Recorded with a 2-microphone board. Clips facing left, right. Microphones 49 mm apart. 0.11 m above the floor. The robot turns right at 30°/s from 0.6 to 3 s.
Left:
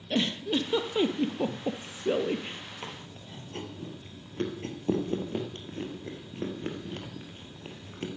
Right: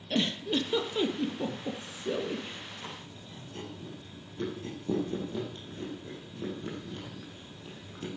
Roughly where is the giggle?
Centre.